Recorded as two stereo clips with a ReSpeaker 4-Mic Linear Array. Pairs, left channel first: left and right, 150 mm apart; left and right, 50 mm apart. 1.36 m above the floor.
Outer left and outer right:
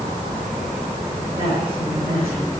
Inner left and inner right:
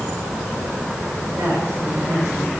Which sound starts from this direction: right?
A woman speaking, at 1.4 s.